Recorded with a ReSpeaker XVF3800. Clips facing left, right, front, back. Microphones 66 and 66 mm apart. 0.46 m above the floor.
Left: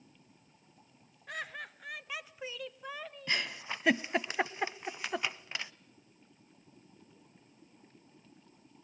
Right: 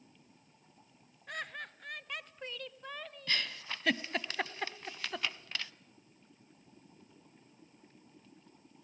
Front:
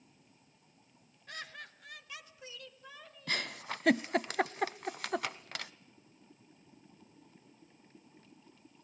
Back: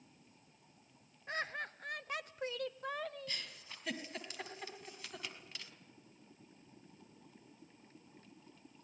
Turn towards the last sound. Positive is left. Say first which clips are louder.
# left 2 dB, front 11 dB
turn(degrees=15)